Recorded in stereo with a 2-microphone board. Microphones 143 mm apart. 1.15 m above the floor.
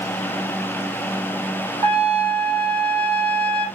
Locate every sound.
1.8 s a trumpet: 45° right (ahead or behind), 1.9 m